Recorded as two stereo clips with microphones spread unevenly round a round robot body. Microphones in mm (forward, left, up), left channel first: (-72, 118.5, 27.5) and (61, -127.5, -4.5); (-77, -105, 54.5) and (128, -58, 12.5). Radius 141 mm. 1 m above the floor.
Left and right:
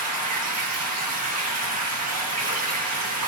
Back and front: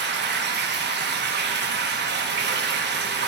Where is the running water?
25° right, 1.1 m.